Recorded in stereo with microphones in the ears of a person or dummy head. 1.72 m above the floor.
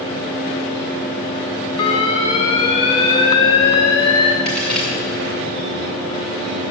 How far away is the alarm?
About 0.8 m.